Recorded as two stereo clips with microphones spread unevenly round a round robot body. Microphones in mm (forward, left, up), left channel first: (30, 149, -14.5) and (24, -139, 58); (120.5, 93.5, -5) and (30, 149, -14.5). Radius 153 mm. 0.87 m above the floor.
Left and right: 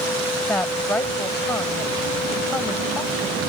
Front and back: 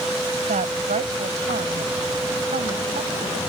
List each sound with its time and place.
0.5 s a woman speaking: 175° left